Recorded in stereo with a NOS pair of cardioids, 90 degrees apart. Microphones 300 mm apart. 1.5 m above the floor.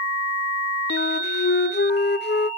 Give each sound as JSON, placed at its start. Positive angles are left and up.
{"t": 0.9, "sound": "a flute", "azimuth_deg": 35, "distance_m": 0.7}